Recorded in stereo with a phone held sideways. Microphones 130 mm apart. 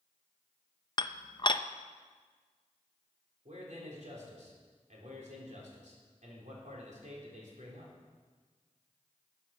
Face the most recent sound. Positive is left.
turn(degrees=-65)  # may be behind; listen again after turning